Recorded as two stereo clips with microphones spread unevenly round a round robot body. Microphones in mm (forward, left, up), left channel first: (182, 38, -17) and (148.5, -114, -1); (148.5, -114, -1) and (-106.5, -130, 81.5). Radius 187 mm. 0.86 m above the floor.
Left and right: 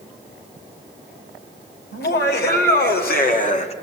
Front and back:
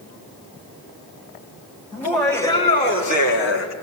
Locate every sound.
1.9 s laughter: 85° left, 3.5 m; by 3.7 s 30° left, 1.3 m